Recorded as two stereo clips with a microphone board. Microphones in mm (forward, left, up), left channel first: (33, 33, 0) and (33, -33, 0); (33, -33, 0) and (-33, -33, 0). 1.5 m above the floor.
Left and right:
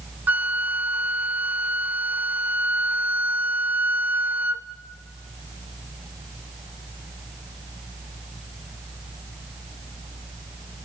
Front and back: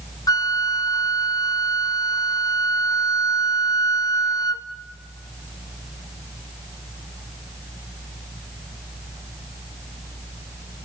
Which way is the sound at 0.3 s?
25° right.